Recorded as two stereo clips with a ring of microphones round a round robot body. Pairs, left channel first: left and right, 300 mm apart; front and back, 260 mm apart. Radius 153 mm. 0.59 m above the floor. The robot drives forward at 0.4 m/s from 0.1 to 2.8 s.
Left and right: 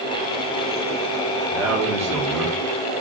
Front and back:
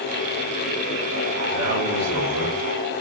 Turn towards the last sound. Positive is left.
turn(degrees=-170)